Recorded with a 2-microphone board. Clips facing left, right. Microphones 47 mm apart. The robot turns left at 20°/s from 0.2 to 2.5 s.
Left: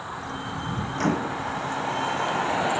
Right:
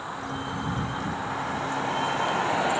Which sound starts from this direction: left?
A microwave, at 0.9 s.